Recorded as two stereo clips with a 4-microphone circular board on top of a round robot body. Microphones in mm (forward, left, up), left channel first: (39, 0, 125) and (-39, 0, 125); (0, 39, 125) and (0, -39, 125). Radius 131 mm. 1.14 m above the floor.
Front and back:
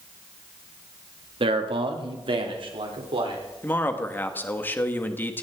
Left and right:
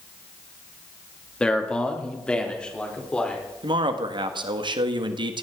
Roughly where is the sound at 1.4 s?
Behind.